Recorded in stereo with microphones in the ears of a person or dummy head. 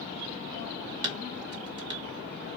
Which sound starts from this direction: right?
Dishes clattering, at 1.0 s.